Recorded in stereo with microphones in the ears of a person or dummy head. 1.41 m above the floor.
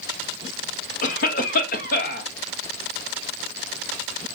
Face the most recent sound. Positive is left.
turn(degrees=40)  # may be behind; listen again after turning